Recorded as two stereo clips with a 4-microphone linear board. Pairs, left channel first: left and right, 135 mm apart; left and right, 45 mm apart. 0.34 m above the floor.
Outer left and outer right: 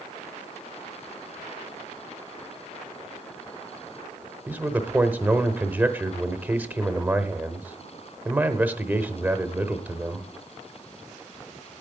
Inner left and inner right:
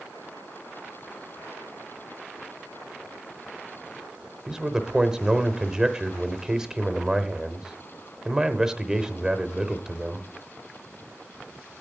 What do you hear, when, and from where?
4.5 s a man speaking: 15° right (ahead or behind), 0.8 m